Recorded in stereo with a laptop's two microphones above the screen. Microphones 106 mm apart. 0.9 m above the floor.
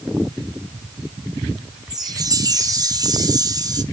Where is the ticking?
I don't hear ticking.